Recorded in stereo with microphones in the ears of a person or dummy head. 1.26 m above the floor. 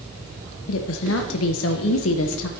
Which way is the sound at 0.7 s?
80° left.